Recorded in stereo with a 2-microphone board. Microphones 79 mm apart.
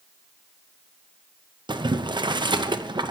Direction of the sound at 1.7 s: 70° right (ahead or behind).